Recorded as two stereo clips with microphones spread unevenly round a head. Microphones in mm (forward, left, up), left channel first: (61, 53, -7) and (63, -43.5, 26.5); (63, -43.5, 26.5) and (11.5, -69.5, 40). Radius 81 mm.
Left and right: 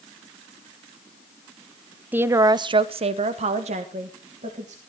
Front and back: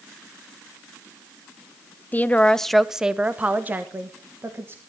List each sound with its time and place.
2.1 s a woman speaking: 5° right, 0.7 m; by 4.8 s 100° right, 1.7 m